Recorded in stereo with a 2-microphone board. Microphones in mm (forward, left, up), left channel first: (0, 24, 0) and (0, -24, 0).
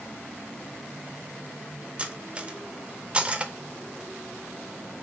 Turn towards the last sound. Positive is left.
turn(degrees=-20)  # may be behind; listen again after turning